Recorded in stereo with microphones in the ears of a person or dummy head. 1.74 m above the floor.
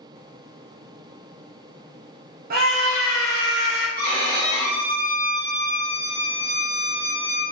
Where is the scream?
50° right (ahead or behind), 0.5 m; by 3.9 s 60° right (ahead or behind), 2 m.